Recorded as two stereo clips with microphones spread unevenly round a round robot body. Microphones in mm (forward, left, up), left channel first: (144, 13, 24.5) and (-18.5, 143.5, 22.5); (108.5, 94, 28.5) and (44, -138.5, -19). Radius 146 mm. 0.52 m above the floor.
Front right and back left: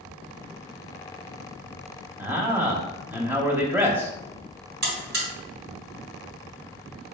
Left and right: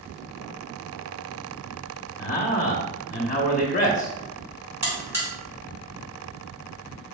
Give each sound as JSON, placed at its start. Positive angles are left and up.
{"t": 2.2, "sound": "a man speaking", "azimuth_deg": 80, "distance_m": 0.9}
{"t": 4.8, "sound": "a buzzer", "azimuth_deg": 180, "distance_m": 1.3}